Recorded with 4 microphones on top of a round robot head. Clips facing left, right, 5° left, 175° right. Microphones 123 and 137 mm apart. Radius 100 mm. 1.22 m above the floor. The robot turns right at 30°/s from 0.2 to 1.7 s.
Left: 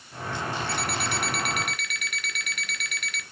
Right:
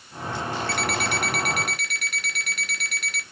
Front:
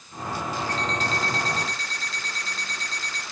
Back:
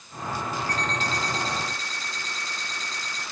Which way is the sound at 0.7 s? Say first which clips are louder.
Right 3 dB, front 1 dB; 65° right.